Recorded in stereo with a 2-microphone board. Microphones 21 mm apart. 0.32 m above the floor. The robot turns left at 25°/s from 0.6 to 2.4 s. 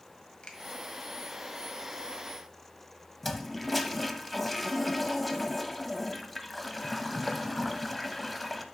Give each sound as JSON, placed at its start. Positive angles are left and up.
{"t": 0.4, "sound": "a finger snap", "side_deg": 55, "distance_m": 1.5}
{"t": 3.2, "sound": "a toilet flushing", "side_deg": 5, "distance_m": 0.7}